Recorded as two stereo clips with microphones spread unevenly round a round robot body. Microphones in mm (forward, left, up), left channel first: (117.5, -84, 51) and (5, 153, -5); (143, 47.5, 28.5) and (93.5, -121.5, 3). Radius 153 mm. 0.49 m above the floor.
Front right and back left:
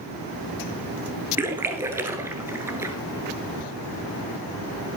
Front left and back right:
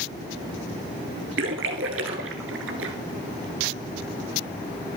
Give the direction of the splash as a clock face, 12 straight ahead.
5 o'clock.